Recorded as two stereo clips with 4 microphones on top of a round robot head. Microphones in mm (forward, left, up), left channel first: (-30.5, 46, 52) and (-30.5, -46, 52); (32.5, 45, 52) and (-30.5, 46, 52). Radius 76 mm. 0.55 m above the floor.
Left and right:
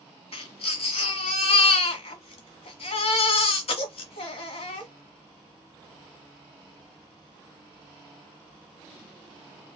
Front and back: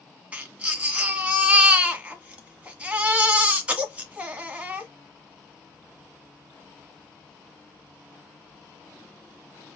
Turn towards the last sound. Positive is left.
turn(degrees=110)